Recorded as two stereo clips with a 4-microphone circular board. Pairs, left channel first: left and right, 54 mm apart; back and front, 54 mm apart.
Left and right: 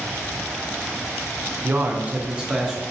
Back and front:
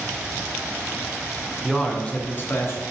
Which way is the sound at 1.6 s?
90° right.